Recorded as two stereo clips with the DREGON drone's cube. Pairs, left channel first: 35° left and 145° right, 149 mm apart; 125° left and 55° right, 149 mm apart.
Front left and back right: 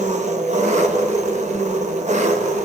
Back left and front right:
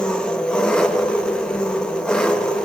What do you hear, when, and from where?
0.0 s an engine running: 150° right, 1.0 m